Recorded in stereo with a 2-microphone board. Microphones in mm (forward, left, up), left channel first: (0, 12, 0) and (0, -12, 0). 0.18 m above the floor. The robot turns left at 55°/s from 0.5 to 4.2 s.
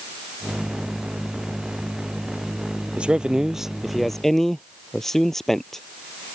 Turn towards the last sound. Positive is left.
turn(degrees=165)